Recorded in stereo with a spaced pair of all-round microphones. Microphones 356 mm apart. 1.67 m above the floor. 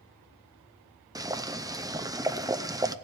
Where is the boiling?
10° right (ahead or behind), 0.6 m.